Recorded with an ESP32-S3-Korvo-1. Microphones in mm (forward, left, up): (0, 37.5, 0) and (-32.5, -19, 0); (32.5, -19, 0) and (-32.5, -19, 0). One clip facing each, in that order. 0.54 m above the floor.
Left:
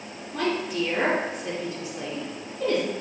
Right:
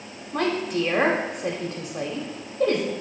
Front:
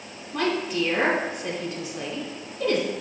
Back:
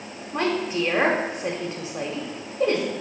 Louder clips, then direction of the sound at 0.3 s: Right 2 dB, back 1 dB; 125° right.